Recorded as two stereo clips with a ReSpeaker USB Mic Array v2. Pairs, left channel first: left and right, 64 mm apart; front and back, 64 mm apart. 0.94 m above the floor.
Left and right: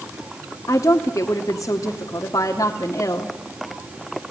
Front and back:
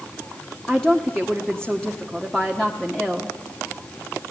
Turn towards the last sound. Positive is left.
turn(degrees=80)